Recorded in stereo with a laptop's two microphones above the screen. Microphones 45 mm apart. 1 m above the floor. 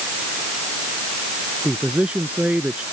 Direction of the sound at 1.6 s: 30° right (ahead or behind).